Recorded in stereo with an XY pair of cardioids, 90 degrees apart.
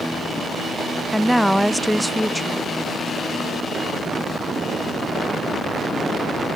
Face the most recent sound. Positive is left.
turn(degrees=0)